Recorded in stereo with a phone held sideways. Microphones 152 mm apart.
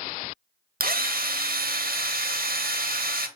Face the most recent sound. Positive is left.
turn(degrees=-70)  # may be behind; listen again after turning